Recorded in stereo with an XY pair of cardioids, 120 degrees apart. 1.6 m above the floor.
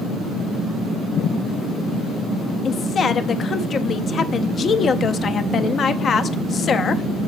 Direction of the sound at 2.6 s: 40° left.